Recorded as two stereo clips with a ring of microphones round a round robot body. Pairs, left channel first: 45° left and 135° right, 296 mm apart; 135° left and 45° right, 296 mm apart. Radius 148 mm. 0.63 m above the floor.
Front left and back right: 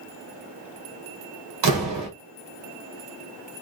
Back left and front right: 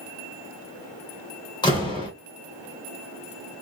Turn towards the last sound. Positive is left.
turn(degrees=-150)